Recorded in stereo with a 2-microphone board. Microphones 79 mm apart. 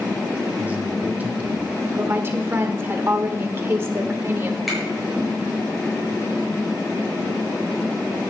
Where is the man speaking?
25° right (ahead or behind), 2.5 m; by 1.7 s 20° right (ahead or behind), 3 m.